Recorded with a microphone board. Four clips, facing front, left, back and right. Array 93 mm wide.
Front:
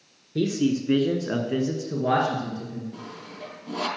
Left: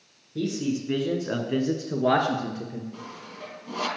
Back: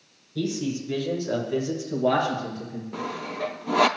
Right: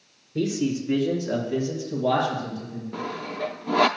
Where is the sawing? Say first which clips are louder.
Right 9 dB, back 8 dB; 130° right, 0.5 m.